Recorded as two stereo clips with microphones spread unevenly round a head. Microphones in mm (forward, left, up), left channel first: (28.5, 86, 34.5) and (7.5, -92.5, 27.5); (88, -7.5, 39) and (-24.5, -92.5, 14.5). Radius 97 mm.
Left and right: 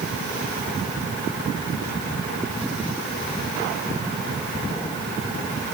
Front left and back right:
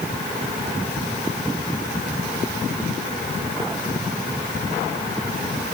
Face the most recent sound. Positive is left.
No sound to turn to.